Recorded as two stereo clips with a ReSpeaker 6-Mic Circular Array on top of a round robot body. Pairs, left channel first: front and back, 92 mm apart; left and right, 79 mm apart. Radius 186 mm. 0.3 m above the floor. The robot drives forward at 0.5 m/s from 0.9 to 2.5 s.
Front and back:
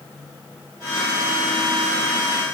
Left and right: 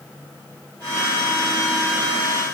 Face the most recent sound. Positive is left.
No sound to turn to.